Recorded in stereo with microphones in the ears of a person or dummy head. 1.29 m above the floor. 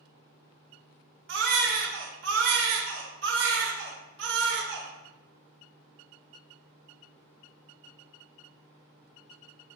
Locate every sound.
1.3 s a baby crying: 60° right (ahead or behind), 1.2 m